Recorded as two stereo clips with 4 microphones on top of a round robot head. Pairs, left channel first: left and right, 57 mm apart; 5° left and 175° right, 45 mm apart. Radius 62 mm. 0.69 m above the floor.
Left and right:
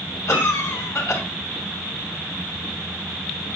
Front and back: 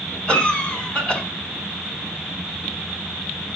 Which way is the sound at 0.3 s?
70° left.